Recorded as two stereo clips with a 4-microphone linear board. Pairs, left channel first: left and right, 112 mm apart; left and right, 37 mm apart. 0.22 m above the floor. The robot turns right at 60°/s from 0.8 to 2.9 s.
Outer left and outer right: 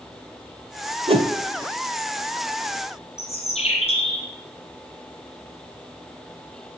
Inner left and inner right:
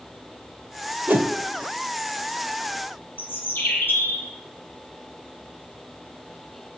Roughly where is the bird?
Left.